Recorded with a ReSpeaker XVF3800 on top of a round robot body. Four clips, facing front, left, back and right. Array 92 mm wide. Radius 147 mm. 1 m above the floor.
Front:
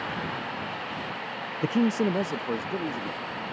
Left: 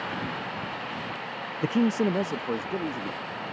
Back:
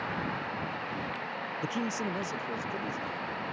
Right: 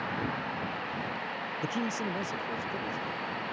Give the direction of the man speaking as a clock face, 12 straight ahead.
11 o'clock.